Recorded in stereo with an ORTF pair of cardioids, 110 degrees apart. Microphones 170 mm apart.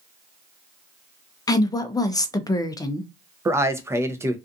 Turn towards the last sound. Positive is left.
turn(degrees=-15)